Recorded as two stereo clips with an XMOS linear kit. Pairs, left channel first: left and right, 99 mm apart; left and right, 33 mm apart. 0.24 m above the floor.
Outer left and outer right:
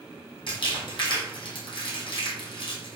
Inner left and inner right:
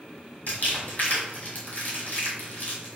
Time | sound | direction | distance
0.5 | crumpling | 55° left (ahead or behind) | 1.8 m